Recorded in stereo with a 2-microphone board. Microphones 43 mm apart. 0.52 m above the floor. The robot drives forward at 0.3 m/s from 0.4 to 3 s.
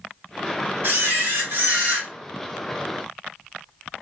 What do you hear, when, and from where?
0.8 s a camera shutter: 55° right (ahead or behind), 1.9 m